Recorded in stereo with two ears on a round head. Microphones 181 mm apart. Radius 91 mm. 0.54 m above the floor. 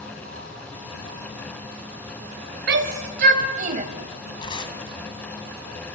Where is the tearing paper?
25° left (ahead or behind), 2.5 m.